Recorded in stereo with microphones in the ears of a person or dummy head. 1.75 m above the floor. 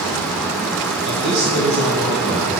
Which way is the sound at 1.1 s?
55° right (ahead or behind).